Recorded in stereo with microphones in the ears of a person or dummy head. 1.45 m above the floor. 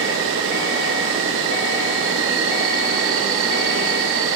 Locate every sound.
0.0 s an insect: 70° right (ahead or behind), 1.2 m